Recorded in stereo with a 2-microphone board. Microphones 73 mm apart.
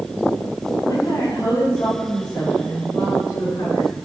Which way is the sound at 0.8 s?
65° left (ahead or behind).